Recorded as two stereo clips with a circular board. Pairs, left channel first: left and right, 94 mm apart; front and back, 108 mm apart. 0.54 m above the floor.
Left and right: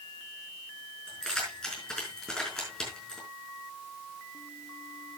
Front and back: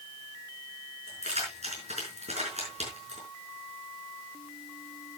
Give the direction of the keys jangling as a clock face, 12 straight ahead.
6 o'clock.